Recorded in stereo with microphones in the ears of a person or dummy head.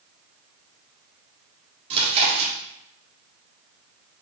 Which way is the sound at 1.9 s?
35° right (ahead or behind).